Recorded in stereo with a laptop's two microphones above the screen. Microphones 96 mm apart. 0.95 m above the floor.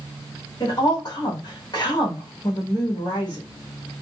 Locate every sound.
0.6 s a woman speaking: 45° left (ahead or behind), 1.3 m